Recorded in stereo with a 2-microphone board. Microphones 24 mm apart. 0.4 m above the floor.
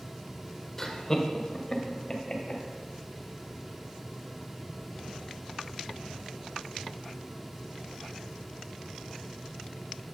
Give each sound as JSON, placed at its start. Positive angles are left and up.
{"t": 0.8, "sound": "laughter", "side_deg": 15, "distance_m": 1.1}